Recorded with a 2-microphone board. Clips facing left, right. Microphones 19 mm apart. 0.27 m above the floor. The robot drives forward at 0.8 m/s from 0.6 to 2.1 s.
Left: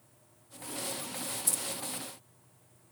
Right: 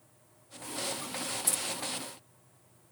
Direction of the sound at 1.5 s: 5° right (ahead or behind).